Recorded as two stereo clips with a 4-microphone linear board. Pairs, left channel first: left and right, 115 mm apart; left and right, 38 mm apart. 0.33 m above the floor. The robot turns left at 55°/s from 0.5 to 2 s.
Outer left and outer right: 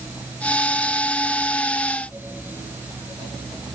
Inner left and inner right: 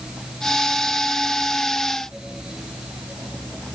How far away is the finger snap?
I don't hear a finger snap.